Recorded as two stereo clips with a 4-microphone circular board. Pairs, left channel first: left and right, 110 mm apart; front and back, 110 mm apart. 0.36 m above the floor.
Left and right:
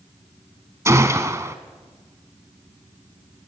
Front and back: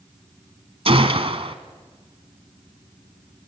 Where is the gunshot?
155° right, 1.4 m.